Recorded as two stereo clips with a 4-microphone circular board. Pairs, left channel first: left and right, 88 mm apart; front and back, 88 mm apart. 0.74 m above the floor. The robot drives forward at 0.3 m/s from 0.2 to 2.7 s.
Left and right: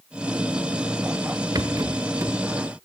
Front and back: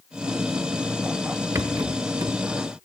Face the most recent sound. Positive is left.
turn(degrees=-150)